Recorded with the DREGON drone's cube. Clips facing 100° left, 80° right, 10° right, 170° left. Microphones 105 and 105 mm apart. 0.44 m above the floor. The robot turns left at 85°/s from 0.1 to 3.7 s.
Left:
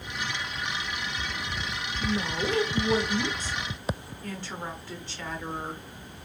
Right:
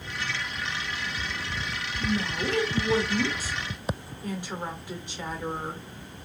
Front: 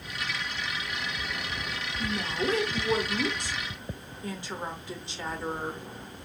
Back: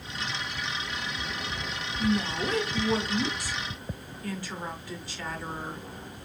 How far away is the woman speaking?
About 0.8 m.